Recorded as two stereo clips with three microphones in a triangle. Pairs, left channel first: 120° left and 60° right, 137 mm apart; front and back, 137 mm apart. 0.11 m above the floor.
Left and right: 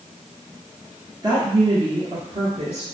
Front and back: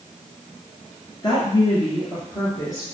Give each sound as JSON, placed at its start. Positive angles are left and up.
{"t": 1.2, "sound": "a woman speaking", "azimuth_deg": -25, "distance_m": 1.5}